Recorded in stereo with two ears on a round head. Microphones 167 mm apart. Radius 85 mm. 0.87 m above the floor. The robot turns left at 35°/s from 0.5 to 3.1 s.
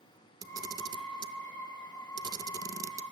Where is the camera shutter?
20° right (ahead or behind), 0.5 m; by 3.0 s 15° right (ahead or behind), 0.5 m.